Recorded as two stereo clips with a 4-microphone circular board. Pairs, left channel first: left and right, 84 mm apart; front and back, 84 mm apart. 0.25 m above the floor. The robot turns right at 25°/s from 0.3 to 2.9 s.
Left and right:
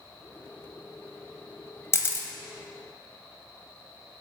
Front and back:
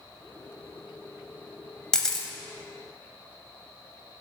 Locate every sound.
1.9 s a camera shutter: 70° left, 0.8 m; by 2.3 s 80° left, 0.8 m